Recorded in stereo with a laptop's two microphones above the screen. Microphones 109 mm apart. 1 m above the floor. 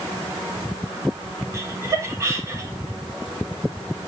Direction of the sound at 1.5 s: 25° right (ahead or behind).